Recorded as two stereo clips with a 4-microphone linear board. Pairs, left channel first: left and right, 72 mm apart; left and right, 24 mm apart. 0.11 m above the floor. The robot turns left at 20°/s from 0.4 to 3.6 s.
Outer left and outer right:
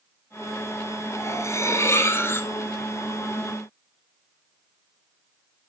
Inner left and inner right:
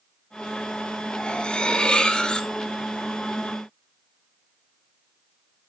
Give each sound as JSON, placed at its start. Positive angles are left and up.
{"t": 1.1, "sound": "cutlery clinking", "side_deg": 45, "distance_m": 1.2}